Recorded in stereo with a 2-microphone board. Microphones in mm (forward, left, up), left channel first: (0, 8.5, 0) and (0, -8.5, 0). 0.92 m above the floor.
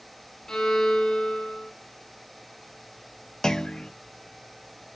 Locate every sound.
0.5 s a violin: 35° left (ahead or behind), 1.9 m
3.4 s a clunk: 35° left (ahead or behind), 0.5 m